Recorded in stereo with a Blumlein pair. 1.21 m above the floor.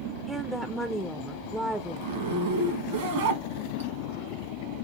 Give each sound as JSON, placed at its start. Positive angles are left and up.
{"t": 0.3, "sound": "a woman speaking", "azimuth_deg": -5, "distance_m": 0.6}
{"t": 2.0, "sound": "a zipper", "azimuth_deg": -50, "distance_m": 1.4}